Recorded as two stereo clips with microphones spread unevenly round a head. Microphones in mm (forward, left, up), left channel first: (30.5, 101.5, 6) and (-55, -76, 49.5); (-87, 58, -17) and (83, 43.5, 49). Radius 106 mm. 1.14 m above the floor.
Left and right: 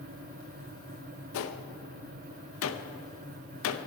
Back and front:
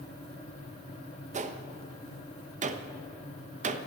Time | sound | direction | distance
1.3 | a gunshot | 45° left | 0.7 m